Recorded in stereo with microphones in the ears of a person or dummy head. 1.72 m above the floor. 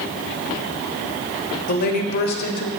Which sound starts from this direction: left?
A woman speaking, at 1.7 s.